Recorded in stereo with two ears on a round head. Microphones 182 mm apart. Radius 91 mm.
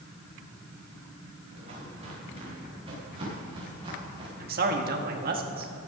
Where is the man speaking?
45° right (ahead or behind), 1.7 m.